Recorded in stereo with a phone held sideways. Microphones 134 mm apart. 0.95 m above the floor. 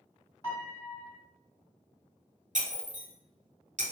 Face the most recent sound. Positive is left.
turn(degrees=-65)  # may be behind; listen again after turning